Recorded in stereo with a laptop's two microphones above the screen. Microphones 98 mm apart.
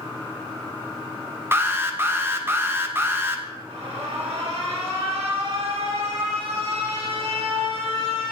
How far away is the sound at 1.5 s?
About 0.5 m.